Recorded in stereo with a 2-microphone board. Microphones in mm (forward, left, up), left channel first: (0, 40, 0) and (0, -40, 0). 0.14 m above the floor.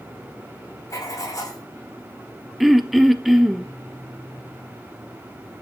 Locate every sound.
0.9 s writing: 45° left (ahead or behind), 7.5 m
2.6 s throat clearing: centre (ahead or behind), 1.1 m